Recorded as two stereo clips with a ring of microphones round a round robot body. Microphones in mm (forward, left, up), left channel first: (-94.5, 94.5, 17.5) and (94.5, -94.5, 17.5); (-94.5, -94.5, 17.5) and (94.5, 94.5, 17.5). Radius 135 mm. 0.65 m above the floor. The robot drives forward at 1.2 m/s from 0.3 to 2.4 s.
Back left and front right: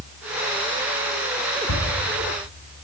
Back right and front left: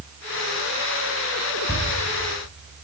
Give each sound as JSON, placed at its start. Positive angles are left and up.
{"t": 1.7, "sound": "a thud", "azimuth_deg": 145, "distance_m": 2.0}